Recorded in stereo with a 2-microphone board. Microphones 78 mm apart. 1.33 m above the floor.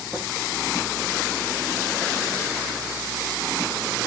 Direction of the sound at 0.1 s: 30° right (ahead or behind).